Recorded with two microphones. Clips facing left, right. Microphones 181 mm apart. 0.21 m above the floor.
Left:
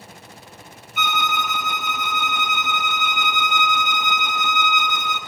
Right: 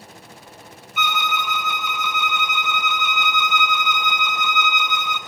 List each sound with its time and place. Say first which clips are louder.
1.0 s a violin: left 1 dB; 50° left (ahead or behind), 0.9 m